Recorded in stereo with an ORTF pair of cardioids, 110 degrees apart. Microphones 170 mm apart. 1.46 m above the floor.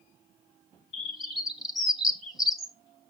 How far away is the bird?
About 1.3 m.